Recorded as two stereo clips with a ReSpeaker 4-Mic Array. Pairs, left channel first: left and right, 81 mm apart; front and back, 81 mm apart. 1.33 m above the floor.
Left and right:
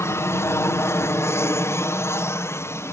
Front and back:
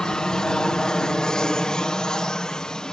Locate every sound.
0.0 s an aircraft: 75° left